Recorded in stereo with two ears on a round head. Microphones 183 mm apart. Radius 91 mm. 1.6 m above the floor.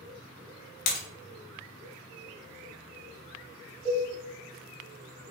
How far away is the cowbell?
About 1.0 m.